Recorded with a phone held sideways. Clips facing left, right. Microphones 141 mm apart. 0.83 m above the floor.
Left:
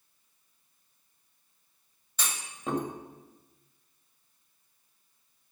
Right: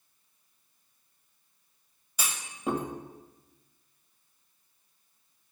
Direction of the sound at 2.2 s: 10° right (ahead or behind).